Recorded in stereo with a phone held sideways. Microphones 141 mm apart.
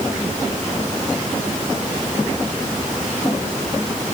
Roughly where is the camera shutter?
No camera shutter in this recording.